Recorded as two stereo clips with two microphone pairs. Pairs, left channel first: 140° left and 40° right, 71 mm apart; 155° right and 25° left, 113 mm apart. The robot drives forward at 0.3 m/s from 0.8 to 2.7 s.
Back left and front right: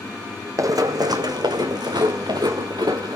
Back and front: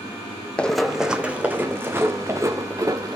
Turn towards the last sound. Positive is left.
turn(degrees=-30)